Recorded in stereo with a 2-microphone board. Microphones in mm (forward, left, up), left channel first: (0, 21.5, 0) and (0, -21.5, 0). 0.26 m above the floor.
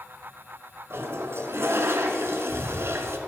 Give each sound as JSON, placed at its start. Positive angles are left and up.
{"t": 0.9, "sound": "a toilet flushing", "side_deg": -75, "distance_m": 0.8}